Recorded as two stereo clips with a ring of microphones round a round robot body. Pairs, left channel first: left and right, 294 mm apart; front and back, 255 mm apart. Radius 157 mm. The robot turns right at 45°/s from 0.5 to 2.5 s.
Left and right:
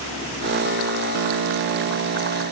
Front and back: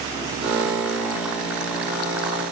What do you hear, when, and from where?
Only background noise.